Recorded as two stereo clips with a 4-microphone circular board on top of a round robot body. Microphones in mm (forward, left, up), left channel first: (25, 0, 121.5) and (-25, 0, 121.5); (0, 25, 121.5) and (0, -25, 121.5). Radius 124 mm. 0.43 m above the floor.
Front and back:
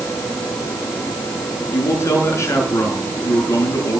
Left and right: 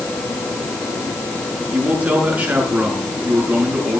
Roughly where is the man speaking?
Ahead right.